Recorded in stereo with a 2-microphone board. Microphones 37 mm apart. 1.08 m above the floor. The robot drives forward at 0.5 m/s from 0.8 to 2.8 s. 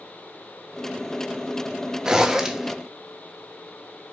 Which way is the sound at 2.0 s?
15° right (ahead or behind).